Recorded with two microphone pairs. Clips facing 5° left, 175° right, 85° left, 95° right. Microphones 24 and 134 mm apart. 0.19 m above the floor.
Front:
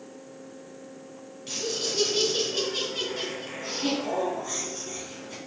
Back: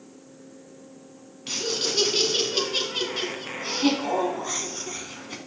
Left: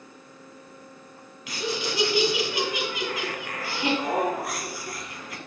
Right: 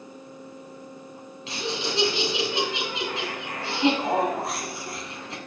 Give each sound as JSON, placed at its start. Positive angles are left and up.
{"t": 1.5, "sound": "laughter", "azimuth_deg": -140, "distance_m": 1.8}